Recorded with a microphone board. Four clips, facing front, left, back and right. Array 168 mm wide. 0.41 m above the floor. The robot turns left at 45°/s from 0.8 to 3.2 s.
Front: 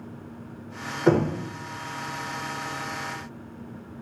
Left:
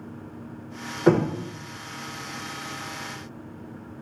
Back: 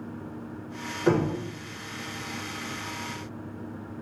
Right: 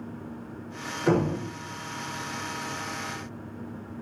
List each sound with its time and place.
1.1 s knocking: 70° left, 1.1 m; by 1.3 s 60° left, 1.1 m